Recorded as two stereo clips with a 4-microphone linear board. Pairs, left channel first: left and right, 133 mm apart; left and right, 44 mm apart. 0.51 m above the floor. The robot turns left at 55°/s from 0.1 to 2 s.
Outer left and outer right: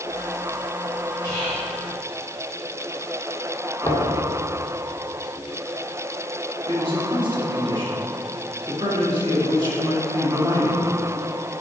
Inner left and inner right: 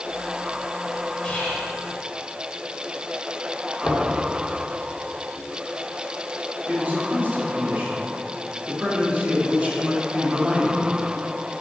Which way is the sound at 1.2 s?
25° left (ahead or behind).